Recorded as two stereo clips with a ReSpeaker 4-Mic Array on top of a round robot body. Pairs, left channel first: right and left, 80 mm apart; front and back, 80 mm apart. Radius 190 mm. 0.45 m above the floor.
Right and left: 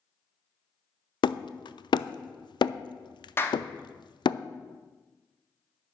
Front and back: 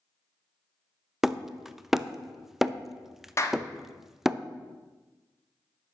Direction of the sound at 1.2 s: 95° right.